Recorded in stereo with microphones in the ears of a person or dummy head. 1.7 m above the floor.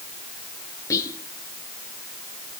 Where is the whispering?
25° left (ahead or behind), 1.0 m.